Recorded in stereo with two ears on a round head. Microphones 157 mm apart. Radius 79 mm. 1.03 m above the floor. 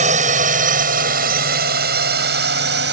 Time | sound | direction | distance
0.0 | a drone | 40° right (ahead or behind) | ?